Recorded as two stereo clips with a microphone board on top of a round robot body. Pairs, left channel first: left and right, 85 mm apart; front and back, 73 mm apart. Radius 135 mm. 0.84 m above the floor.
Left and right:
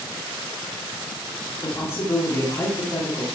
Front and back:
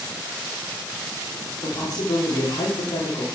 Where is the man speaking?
30° left, 3.5 m.